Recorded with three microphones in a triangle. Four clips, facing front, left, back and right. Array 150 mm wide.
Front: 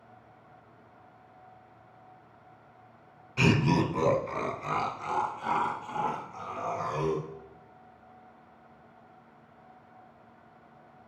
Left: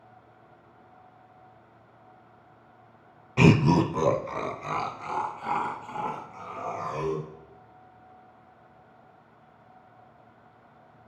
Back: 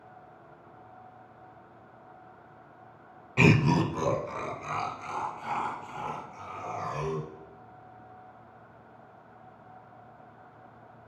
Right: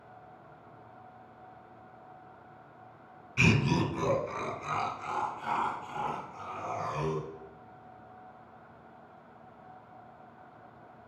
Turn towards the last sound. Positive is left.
turn(degrees=40)